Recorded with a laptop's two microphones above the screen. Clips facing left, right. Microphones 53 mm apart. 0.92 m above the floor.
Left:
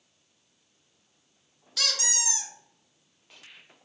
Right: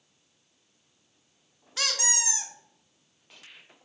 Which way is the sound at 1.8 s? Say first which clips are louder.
Right 2 dB; 25° right (ahead or behind).